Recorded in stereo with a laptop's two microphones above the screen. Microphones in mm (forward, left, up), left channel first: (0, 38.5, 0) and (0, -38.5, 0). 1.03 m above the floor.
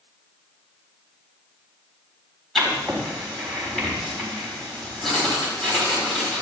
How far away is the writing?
About 4 m.